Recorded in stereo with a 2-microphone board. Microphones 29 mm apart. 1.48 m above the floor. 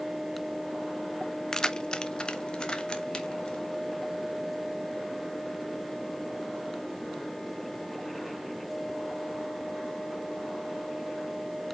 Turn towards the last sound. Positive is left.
turn(degrees=30)  # may be behind; listen again after turning